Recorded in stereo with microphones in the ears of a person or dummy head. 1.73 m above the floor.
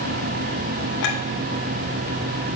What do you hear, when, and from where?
1.0 s a clink: 60° left (ahead or behind), 2.0 m